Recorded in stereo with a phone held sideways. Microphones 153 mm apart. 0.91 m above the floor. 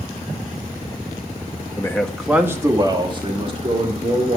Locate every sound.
1.8 s a man speaking: 25° left (ahead or behind), 0.8 m; by 4.4 s 45° right (ahead or behind), 2.5 m